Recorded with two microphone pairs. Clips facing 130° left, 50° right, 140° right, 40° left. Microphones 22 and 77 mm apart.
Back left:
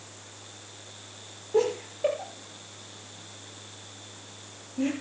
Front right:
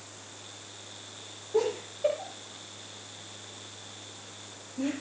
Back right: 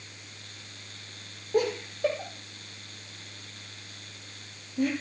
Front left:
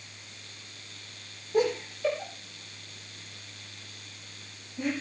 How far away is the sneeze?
I don't hear a sneeze.